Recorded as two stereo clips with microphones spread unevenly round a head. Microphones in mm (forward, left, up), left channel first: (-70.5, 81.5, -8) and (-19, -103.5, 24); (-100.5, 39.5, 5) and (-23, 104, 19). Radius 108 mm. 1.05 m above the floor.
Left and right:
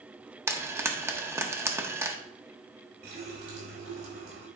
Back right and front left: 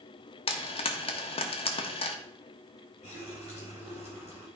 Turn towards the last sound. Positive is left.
turn(degrees=-80)